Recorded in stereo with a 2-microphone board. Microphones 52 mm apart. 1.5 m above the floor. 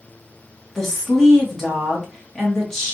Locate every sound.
0.8 s a woman speaking: 10° left (ahead or behind), 1.2 m